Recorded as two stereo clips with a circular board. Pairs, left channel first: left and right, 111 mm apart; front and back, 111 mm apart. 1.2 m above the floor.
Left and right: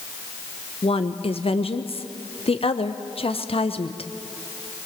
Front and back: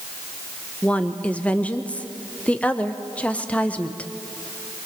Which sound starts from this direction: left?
A woman speaking, at 0.8 s.